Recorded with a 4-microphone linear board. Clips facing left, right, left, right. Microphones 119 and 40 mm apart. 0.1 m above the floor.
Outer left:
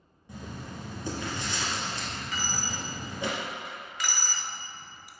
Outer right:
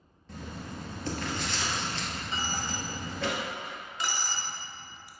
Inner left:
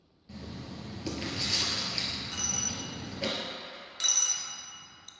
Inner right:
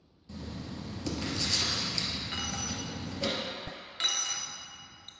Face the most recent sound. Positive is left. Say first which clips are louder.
# outer right 1 dB, inner right 2 dB
turn(degrees=-30)  # may be behind; listen again after turning